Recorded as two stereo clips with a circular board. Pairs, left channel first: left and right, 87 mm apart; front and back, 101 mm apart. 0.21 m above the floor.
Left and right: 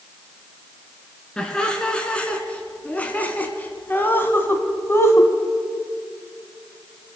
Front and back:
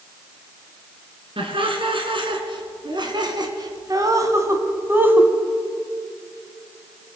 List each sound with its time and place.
1.4 s laughter: 170° left, 2.5 m; by 5.3 s 115° left, 1.5 m